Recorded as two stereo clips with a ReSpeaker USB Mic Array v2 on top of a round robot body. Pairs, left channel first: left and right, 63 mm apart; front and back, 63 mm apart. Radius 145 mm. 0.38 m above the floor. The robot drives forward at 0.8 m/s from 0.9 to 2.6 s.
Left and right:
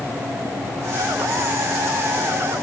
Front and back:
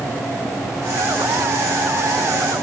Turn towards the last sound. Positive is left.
No sound to turn to.